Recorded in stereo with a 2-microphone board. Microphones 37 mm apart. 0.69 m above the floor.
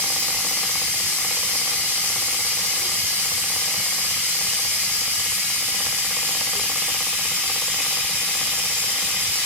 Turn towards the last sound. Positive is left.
turn(degrees=-70)  # may be behind; listen again after turning